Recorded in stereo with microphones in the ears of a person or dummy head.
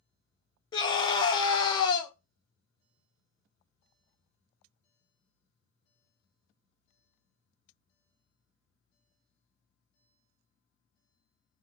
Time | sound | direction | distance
0.7 | a scream | 25° left (ahead or behind) | 0.7 m